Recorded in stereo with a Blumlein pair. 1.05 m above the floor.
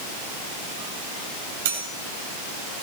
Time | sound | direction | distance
1.6 | cutlery clinking | 60° right | 3.5 m